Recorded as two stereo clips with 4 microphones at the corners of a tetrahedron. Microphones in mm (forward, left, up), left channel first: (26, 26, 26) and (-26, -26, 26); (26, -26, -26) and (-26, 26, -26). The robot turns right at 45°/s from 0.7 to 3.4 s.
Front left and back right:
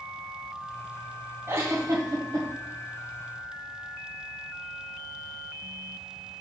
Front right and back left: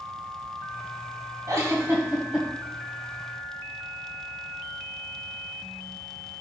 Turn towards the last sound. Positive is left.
turn(degrees=-100)